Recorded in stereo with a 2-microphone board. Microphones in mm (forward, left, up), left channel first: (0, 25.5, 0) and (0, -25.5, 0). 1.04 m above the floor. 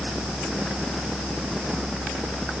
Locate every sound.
Only background noise.